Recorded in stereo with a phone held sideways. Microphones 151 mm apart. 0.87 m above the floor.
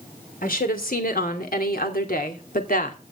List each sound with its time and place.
0.4 s a woman speaking: 70° left (ahead or behind), 3 m; by 3.0 s 65° left (ahead or behind), 2.5 m